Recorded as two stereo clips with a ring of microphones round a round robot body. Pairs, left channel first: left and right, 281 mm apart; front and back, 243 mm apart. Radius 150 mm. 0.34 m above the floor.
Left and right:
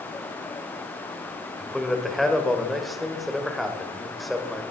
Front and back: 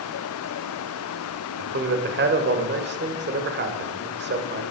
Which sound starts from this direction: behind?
A man speaking, at 1.6 s.